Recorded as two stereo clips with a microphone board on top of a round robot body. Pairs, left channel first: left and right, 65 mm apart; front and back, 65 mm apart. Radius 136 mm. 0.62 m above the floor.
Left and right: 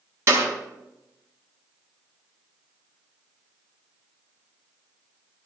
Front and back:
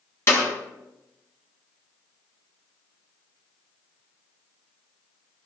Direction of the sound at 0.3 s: 45° right.